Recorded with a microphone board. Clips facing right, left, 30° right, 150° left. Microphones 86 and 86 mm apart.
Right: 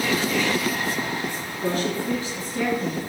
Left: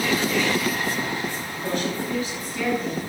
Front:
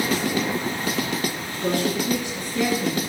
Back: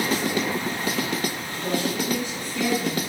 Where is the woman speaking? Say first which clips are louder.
Right 3 dB, front 4 dB; 40° right, 3 m; by 3.0 s 25° right, 3.5 m.